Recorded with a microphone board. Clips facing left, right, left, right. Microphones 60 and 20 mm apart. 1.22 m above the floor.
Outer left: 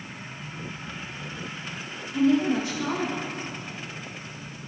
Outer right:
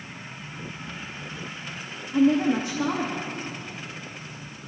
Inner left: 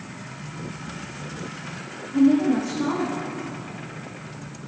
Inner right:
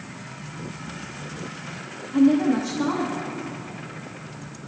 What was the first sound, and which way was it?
A woman speaking, 45° right (ahead or behind).